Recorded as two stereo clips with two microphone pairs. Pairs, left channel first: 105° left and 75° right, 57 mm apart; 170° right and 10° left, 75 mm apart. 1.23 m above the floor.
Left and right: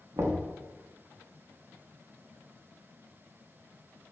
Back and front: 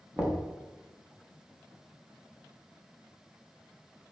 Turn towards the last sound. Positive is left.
turn(degrees=-65)